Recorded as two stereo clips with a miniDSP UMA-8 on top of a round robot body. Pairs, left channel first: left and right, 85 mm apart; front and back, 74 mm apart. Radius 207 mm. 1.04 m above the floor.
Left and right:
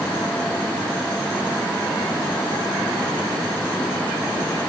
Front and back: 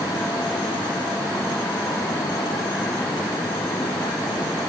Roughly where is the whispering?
I don't hear whispering.